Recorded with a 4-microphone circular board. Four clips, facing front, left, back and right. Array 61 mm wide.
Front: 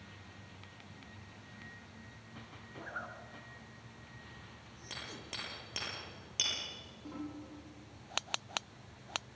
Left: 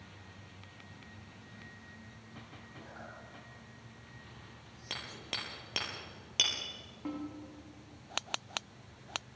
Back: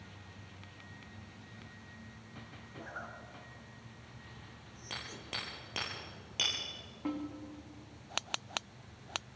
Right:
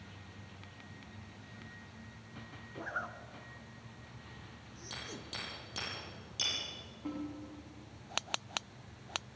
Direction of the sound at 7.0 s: 155° left.